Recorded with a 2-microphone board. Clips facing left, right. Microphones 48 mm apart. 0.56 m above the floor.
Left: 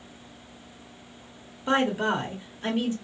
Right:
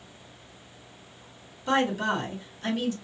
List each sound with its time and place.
1.7 s a woman speaking: 20° left (ahead or behind), 1.0 m